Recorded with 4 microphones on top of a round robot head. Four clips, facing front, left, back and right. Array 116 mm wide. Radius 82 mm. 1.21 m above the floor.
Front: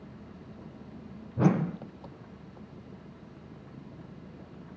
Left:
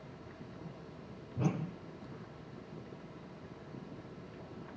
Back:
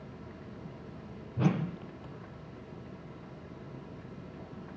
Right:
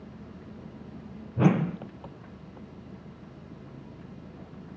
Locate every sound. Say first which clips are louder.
0.0 s an engine running: right 5 dB, back 1 dB; 60° right
1.4 s a whoosh: right 12 dB, front 5 dB; 55° right